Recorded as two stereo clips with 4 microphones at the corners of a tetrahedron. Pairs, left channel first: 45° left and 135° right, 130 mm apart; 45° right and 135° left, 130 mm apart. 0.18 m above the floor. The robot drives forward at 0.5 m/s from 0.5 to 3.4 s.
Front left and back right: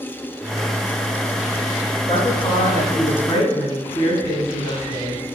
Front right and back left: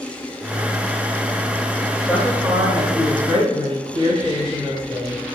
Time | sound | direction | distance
2.1 | a woman speaking | 65° left | 1.6 m